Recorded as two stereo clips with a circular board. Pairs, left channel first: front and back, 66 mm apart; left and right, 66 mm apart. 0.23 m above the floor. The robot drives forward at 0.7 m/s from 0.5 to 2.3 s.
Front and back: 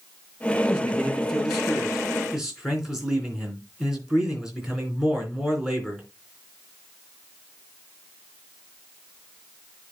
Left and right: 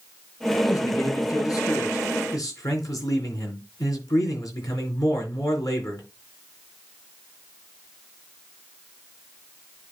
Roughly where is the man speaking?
Left.